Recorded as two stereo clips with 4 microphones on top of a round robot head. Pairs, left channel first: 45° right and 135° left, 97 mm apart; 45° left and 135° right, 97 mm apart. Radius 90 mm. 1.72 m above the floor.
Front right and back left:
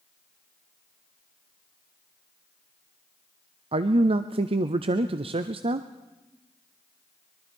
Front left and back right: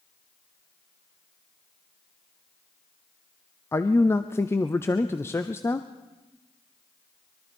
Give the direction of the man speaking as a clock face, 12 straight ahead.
8 o'clock.